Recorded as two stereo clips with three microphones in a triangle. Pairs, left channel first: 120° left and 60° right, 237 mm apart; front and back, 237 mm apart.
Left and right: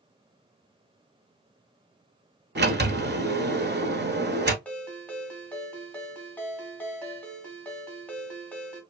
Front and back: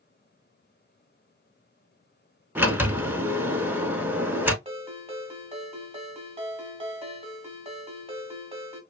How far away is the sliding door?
About 0.5 m.